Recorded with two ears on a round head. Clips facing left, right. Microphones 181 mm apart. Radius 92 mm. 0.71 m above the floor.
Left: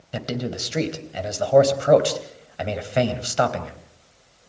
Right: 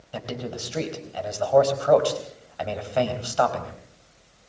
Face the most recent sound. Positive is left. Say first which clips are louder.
# left 4 dB
turn(degrees=25)  # may be behind; listen again after turning